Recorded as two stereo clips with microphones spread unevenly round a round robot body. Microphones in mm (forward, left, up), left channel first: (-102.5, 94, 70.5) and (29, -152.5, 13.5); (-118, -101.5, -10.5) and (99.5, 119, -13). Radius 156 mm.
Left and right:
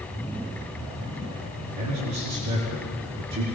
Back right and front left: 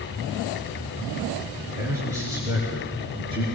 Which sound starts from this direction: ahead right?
A man speaking, at 1.8 s.